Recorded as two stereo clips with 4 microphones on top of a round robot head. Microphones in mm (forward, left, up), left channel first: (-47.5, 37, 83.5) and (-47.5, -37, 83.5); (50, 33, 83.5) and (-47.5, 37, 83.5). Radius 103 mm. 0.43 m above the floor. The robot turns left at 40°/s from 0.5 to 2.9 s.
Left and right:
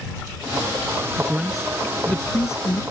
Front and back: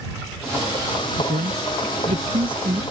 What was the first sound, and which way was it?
A man speaking, 165° right.